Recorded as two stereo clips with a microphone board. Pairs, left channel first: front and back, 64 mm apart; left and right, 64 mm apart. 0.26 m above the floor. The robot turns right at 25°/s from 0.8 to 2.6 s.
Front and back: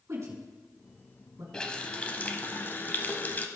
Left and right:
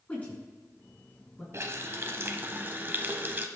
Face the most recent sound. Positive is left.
turn(degrees=-45)